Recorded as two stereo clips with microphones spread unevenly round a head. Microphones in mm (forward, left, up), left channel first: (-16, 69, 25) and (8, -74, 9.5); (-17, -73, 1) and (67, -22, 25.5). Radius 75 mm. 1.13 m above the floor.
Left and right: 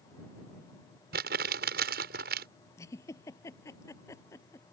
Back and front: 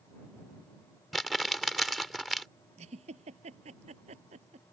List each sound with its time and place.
1.1 s crumpling: 55° right
2.8 s a giggle: 30° left